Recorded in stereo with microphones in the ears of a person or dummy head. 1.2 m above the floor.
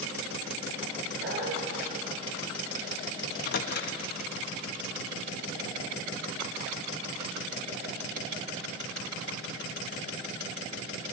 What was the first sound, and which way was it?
A dog barking, 55° right (ahead or behind).